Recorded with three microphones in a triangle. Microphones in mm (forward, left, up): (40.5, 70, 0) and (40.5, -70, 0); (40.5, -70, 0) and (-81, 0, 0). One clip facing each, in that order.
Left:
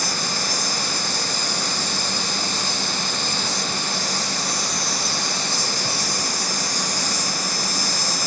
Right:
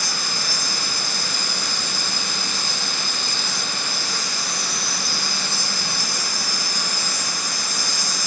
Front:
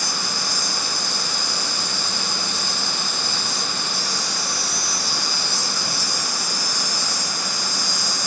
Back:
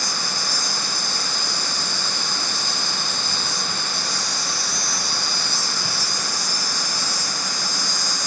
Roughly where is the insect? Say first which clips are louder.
Left 3 dB, front 1 dB; behind left.